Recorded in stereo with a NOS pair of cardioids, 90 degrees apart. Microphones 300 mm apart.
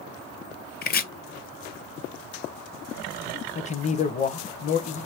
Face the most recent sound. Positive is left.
turn(degrees=25)